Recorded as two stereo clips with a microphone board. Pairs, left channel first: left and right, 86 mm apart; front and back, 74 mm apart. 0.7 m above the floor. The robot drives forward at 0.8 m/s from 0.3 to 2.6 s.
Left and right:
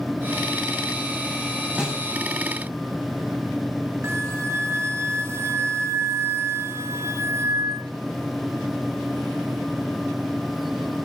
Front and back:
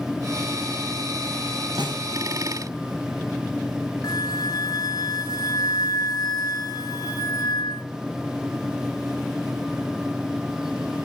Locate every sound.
1.8 s a snare drum: 170° right, 5 m; by 2.0 s 175° right, 5.5 m
4.0 s a flute: 30° right, 4 m